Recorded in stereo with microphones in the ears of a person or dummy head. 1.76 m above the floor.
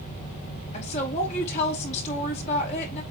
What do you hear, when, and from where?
0.7 s a woman speaking: 35° left (ahead or behind), 4 m